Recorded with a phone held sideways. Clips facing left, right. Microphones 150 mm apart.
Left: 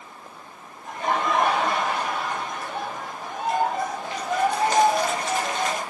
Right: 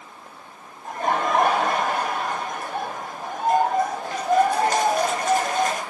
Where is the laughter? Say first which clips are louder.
Right 2 dB; 45° right (ahead or behind), 0.6 m.